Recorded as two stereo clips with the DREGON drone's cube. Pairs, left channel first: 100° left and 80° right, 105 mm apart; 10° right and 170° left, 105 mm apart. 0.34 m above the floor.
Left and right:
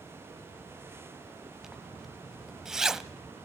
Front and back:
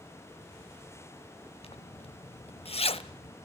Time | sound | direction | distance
1.6 | a zipper | 5° left | 0.7 m